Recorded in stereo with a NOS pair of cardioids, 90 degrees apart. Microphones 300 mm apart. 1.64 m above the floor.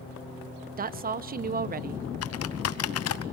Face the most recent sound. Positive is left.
turn(degrees=55)